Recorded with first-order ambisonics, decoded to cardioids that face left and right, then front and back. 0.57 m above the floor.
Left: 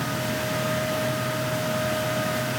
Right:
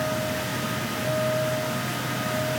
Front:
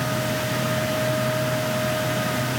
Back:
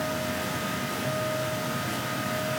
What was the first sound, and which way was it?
Only background noise.